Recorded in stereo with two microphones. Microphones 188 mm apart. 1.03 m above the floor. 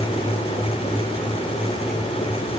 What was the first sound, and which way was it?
Only background noise.